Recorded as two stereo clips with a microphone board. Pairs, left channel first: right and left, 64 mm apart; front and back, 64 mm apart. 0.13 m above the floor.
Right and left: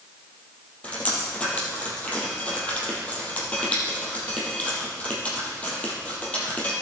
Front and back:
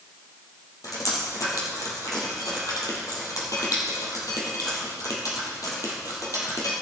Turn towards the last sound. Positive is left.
turn(degrees=-20)